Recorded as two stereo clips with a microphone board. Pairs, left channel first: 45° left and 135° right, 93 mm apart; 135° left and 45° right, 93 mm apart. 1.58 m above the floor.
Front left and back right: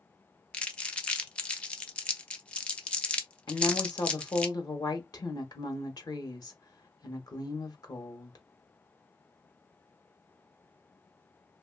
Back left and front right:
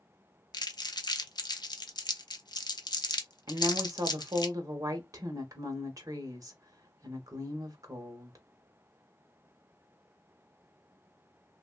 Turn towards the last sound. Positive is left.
turn(degrees=5)